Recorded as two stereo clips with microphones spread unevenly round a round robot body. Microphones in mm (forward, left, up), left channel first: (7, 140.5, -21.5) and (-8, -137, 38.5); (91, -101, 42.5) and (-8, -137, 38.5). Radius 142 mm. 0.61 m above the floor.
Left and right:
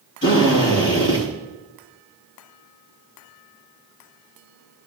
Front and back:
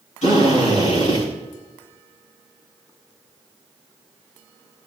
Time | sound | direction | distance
0.2 | a drill | 35° left | 4.5 m